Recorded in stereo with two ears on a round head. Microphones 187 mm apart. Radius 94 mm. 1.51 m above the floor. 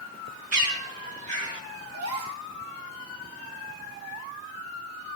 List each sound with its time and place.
0.5 s a bird: 40° right (ahead or behind), 3 m
1.9 s a gasp: 80° right, 3 m